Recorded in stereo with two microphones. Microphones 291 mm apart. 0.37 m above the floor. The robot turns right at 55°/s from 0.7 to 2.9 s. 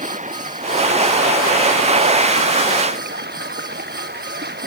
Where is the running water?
155° right; by 4.7 s 35° right.